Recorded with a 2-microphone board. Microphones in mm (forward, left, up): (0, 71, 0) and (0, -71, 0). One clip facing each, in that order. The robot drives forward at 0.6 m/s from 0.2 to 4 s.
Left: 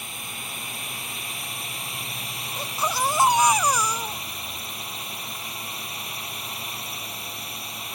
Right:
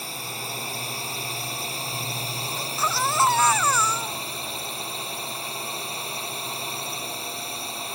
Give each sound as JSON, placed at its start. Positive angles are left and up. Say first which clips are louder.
{"t": 0.0, "sound": "a drone", "louder": "right 4 dB", "side_deg": -35}
{"t": 2.6, "sound": "a baby crying", "louder": "left 2 dB", "side_deg": 20}